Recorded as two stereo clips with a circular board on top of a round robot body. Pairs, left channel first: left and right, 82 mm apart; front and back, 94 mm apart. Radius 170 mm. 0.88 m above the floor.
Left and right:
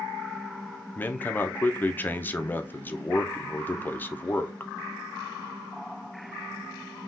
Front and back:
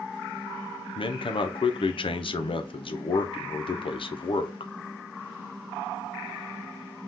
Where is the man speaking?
20° left, 0.6 m.